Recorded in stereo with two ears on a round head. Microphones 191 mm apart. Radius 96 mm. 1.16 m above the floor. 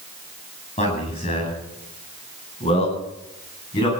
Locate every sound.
0.8 s a man speaking: 30° left (ahead or behind), 9.5 m; by 3.9 s 25° left (ahead or behind), 11.5 m